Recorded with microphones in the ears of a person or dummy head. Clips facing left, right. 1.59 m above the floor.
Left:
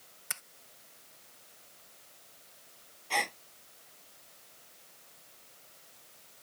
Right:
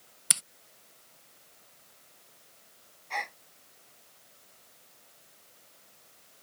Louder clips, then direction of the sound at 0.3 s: Right 5 dB; 45° right (ahead or behind).